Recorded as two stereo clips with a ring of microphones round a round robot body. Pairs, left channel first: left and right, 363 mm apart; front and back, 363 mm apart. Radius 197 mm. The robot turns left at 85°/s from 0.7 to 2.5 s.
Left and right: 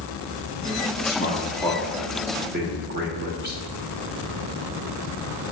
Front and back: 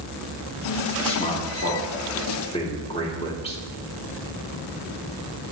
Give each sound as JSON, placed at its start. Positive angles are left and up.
{"t": 1.0, "sound": "a man speaking", "azimuth_deg": 70, "distance_m": 0.8}